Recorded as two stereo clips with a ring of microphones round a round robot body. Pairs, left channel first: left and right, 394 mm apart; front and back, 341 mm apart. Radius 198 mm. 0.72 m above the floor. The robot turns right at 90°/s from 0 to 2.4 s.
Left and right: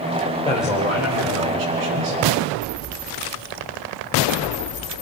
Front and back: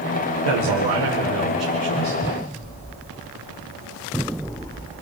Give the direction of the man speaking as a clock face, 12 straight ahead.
6 o'clock.